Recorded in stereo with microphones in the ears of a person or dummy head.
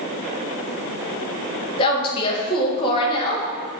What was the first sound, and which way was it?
A woman speaking, 30° left (ahead or behind).